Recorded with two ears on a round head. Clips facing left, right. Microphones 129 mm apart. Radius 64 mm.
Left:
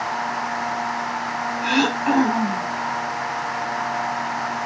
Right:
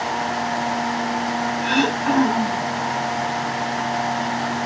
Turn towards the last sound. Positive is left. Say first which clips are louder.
# left 1 dB
turn(degrees=10)  # may be behind; listen again after turning